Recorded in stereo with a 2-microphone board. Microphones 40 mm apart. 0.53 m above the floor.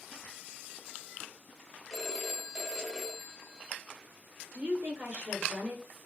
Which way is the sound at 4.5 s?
30° right (ahead or behind).